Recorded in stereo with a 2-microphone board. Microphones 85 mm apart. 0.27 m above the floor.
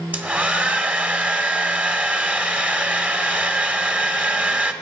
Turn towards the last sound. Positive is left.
turn(degrees=-20)  # may be behind; listen again after turning